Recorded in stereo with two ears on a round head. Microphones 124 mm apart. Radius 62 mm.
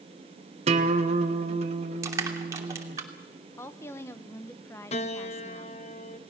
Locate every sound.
0.7 s a guitar: 50° right (ahead or behind), 1.8 m
2.0 s crushing: 25° right (ahead or behind), 2.5 m
3.6 s a woman speaking: 20° left (ahead or behind), 1.3 m
4.9 s a piano: 50° left (ahead or behind), 1.0 m